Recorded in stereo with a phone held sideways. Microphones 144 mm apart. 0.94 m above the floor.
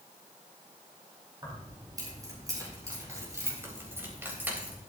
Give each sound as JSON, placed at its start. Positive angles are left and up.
{"t": 1.4, "sound": "keys jangling", "side_deg": -30, "distance_m": 4.5}